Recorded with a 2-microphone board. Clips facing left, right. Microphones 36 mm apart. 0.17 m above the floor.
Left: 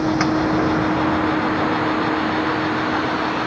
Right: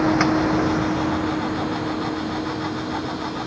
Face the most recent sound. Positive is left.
turn(degrees=60)  # may be behind; listen again after turning